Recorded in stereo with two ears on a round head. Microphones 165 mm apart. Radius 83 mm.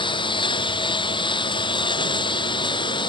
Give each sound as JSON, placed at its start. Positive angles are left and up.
{"t": 0.0, "sound": "a lawn mower", "side_deg": 25}